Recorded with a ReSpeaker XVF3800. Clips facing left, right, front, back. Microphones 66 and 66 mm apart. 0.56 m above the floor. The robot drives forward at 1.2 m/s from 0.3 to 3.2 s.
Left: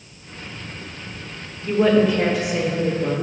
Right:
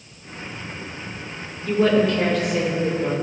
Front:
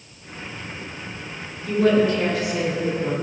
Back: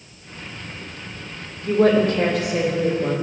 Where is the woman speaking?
165° left, 1.7 m; by 3.1 s 175° left, 3.5 m.